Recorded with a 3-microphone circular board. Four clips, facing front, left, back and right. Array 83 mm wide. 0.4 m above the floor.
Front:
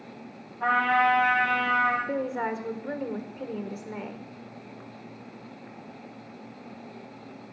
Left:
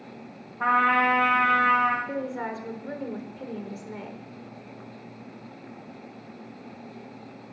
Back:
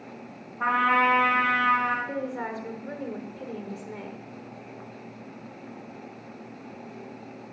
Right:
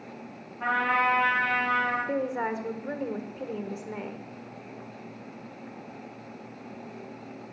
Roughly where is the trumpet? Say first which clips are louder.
Left 4 dB, even; behind left.